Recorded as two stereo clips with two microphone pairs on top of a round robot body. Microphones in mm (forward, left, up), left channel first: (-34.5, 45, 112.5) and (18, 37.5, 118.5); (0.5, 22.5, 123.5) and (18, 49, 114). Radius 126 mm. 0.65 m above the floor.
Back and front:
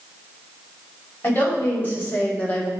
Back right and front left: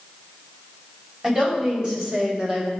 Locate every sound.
1.2 s a woman speaking: 115° left, 5 m; by 2.7 s 110° left, 3 m